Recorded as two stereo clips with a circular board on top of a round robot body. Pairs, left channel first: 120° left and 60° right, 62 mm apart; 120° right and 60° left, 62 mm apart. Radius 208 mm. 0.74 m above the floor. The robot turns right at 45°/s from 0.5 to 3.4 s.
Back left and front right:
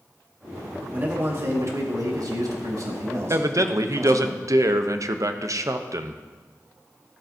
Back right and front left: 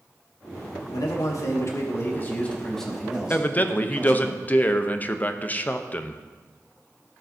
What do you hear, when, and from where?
0.9 s a man speaking: 125° right, 2.0 m; by 4.3 s 10° right, 2.0 m
3.3 s a man speaking: 70° right, 0.9 m; by 6.2 s 65° right, 0.9 m